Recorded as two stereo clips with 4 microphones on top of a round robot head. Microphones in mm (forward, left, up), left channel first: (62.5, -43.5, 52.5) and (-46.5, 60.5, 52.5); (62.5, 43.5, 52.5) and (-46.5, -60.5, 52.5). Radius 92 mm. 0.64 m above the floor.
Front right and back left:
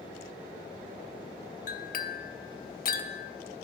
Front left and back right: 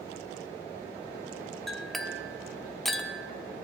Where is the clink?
45° right, 0.8 m.